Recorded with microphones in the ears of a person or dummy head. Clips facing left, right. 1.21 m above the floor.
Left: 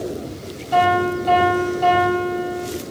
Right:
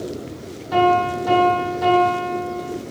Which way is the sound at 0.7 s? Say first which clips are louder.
Even; 80° right.